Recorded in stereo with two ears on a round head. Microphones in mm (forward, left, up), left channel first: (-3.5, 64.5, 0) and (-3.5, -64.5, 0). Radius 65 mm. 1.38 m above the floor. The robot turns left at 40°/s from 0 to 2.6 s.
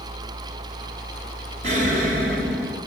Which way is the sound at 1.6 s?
50° right.